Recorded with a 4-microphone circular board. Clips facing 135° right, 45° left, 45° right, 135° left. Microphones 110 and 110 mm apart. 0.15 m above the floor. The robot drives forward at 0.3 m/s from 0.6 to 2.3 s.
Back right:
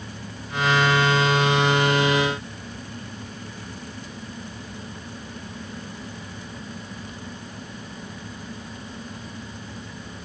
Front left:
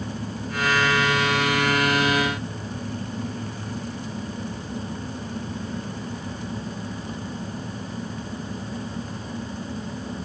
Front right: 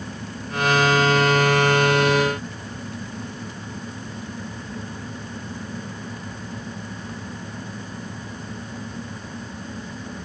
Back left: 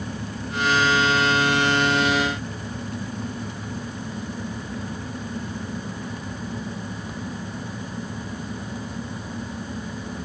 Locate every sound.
Only background noise.